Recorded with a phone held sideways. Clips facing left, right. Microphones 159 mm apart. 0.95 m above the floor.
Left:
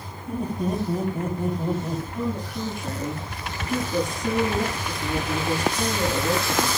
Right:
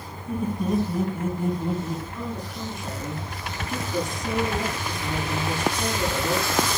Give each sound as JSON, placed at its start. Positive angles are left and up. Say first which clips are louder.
{"t": 0.3, "sound": "laughter", "louder": "right 1 dB", "side_deg": 35, "distance_m": 5.0}
{"t": 2.1, "sound": "a woman speaking", "louder": "left 4 dB", "side_deg": 50, "distance_m": 9.5}